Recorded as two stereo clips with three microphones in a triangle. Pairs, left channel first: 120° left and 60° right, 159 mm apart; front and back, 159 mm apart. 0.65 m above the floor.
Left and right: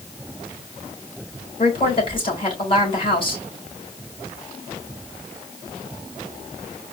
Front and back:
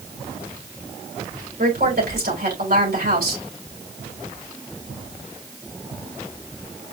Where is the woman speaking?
175° left, 3.5 m.